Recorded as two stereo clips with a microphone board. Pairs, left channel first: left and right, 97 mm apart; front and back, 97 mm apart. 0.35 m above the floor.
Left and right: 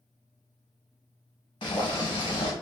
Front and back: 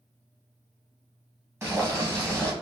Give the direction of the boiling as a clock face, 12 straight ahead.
8 o'clock.